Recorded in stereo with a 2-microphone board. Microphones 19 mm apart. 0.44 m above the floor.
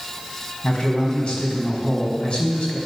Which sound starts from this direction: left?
A man speaking, at 0.6 s.